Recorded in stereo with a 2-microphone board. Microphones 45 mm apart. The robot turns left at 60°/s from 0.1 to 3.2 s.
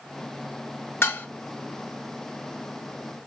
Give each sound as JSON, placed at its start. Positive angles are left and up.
{"t": 1.0, "sound": "dishes clattering", "side_deg": 65, "distance_m": 0.7}